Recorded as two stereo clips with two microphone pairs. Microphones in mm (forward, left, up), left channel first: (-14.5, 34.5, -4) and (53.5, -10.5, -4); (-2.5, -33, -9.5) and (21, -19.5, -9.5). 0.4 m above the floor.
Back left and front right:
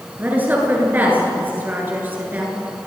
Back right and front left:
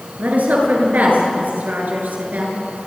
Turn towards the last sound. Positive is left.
turn(degrees=35)